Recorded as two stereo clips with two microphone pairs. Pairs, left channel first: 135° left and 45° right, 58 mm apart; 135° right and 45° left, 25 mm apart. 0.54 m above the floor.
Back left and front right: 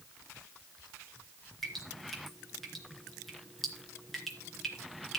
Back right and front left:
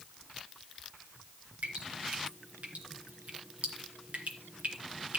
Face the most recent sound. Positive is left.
turn(degrees=50)